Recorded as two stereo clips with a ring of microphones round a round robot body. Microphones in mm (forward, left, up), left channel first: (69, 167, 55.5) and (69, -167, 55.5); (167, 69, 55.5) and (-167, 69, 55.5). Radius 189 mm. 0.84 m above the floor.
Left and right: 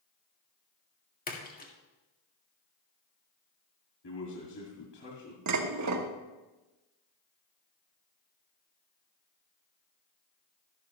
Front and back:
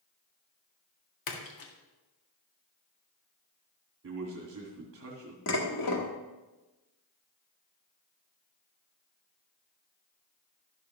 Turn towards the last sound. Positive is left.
turn(degrees=-50)